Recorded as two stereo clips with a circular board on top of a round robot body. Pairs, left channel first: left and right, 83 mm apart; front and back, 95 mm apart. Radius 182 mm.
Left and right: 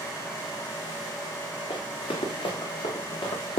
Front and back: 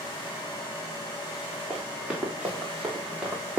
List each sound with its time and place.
1.7 s running footsteps: 100° left, 4 m; by 3.6 s 105° left, 3 m